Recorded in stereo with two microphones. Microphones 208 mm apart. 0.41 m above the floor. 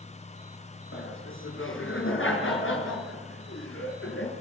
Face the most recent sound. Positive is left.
turn(degrees=75)  # may be behind; listen again after turning